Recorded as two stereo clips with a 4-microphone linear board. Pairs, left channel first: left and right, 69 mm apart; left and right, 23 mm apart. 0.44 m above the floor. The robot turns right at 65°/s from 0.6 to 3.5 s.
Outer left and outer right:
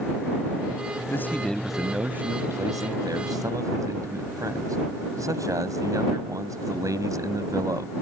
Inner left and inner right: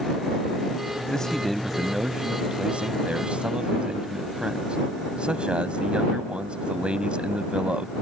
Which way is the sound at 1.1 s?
140° left.